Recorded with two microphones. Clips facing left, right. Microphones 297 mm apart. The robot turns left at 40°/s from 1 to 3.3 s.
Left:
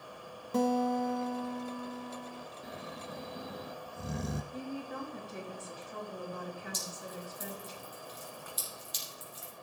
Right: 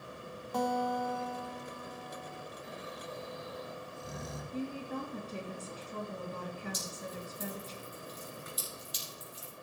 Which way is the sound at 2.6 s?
50° left (ahead or behind).